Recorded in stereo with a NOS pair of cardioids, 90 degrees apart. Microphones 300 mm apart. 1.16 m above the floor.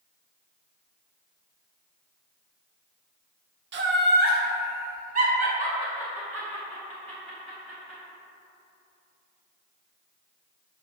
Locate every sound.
3.7 s laughter: 40° right, 0.7 m; by 8.0 s 20° right, 3.5 m